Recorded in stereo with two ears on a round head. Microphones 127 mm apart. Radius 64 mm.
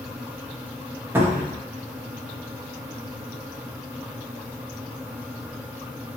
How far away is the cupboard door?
About 0.5 m.